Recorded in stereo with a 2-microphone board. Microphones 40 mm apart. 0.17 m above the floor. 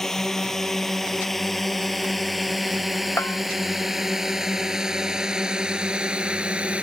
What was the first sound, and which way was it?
A drone, 10° left (ahead or behind).